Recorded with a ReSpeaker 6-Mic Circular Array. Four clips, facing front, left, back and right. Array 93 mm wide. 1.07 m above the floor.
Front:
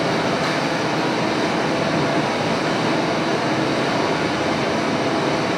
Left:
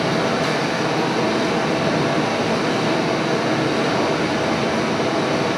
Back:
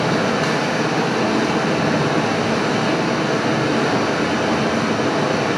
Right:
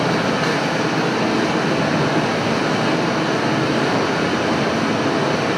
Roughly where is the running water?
Behind right.